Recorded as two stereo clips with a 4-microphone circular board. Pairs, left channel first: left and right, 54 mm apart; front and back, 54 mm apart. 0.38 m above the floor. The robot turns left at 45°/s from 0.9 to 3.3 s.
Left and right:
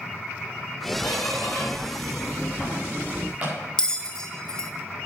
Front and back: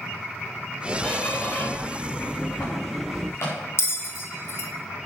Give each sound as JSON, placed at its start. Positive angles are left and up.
{"t": 1.0, "sound": "a squeak", "azimuth_deg": 75, "distance_m": 6.5}
{"t": 3.8, "sound": "a bell", "azimuth_deg": 20, "distance_m": 1.4}